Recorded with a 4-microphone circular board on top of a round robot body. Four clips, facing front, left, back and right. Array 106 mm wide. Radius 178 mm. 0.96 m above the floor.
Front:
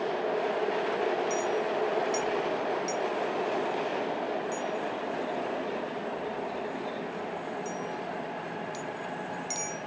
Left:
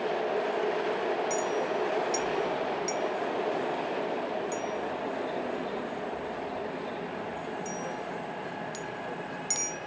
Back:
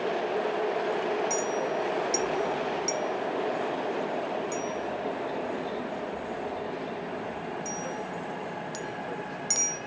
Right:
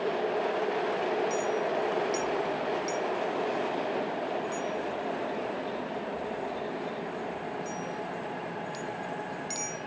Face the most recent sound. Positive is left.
turn(degrees=145)